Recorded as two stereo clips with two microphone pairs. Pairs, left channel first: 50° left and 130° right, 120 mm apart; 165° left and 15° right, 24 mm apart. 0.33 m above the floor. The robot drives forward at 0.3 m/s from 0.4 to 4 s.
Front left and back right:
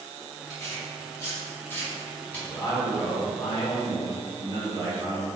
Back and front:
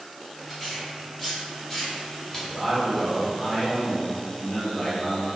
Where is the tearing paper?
80° left, 1.4 m; by 2.4 s 120° left, 1.5 m.